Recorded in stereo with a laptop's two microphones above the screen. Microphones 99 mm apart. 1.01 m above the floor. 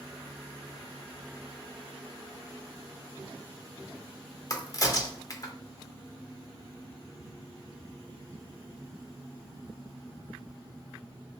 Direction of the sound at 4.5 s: 35° left (ahead or behind).